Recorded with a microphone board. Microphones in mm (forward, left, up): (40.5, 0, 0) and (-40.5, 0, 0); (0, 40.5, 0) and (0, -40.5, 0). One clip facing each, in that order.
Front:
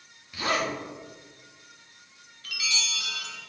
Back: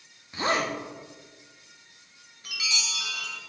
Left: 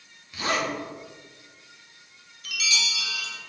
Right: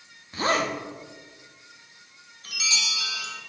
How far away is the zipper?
About 0.5 m.